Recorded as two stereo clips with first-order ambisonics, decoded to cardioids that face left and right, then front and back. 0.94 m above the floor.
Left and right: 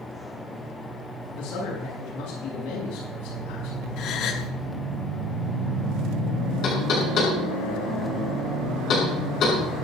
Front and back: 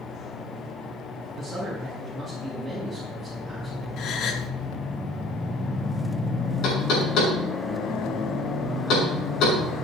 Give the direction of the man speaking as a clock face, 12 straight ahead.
9 o'clock.